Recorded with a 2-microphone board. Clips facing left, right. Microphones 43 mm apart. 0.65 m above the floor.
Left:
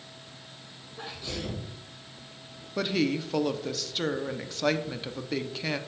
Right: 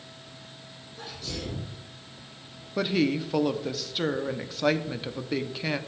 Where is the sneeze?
20° left (ahead or behind), 3 m.